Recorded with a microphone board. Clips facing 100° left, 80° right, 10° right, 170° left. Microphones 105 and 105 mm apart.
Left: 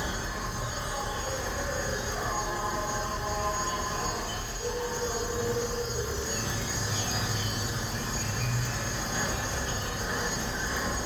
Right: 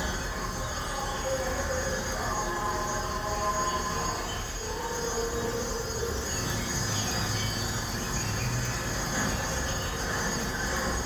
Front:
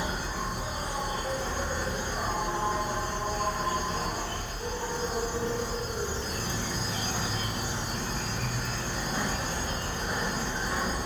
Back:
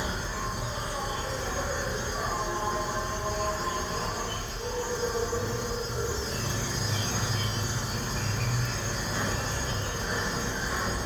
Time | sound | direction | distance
0.0 | an insect | 30° left | 1.9 m